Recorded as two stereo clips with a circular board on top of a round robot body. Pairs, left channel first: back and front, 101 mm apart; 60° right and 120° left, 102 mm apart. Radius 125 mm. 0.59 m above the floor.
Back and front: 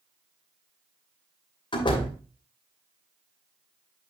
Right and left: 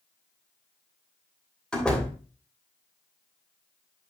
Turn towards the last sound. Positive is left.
turn(degrees=-140)